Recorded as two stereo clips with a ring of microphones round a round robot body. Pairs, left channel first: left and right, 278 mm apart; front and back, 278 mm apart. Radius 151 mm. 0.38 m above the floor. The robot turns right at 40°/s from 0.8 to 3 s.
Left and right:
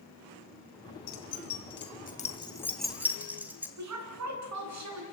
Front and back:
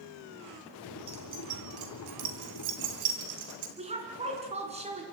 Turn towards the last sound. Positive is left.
turn(degrees=-110)